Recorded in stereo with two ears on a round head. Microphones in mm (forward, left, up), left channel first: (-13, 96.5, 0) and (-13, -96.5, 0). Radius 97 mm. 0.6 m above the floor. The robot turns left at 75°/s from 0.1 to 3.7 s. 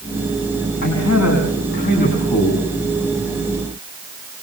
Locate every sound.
0.8 s a man speaking: 125° left, 6 m; by 2.6 s 10° right, 6 m